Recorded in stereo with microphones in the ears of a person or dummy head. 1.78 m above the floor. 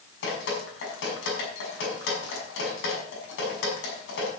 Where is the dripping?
75° left (ahead or behind), 6 m.